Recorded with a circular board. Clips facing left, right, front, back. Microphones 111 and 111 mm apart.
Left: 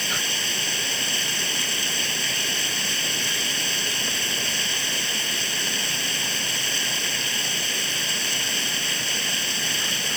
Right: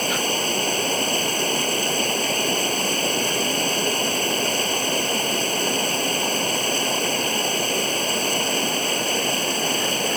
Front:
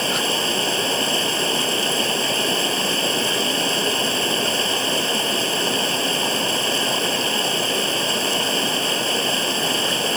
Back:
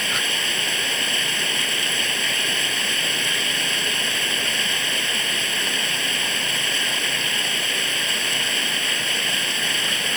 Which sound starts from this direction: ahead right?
Running water, at 0.0 s.